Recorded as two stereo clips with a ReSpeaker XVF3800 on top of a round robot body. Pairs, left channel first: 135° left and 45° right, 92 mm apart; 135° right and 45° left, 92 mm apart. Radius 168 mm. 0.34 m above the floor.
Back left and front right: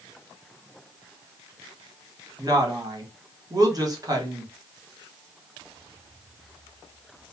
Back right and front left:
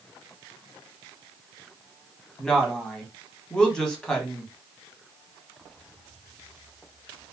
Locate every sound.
2.4 s a woman speaking: 60° right, 1.5 m